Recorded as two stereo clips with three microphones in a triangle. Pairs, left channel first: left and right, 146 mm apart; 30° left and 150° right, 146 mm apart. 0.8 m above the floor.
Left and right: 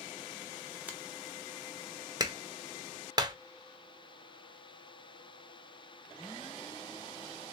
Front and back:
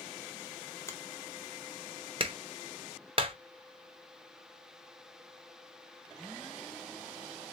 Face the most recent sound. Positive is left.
turn(degrees=-135)